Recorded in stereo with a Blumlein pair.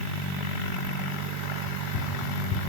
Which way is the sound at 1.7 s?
40° left.